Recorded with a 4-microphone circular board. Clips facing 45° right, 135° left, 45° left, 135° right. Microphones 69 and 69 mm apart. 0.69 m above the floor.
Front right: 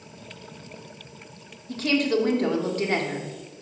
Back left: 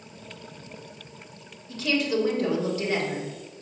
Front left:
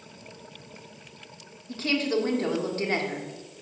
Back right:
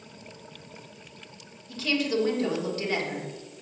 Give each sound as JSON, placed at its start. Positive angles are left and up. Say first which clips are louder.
{"t": 1.7, "sound": "a woman speaking", "louder": "front right 3 dB, front left 1 dB", "azimuth_deg": -5, "distance_m": 1.4}